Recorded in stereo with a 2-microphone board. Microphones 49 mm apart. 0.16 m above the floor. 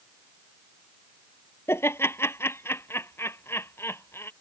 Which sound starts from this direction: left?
Laughter, at 1.7 s.